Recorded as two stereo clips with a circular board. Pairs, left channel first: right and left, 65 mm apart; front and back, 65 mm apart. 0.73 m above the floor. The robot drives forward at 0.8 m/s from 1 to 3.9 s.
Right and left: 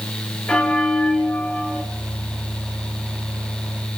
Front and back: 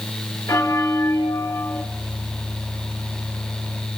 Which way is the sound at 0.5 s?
20° right.